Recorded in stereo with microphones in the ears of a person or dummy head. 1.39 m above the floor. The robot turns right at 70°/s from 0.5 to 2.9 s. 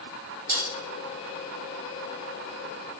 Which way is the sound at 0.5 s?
55° right (ahead or behind).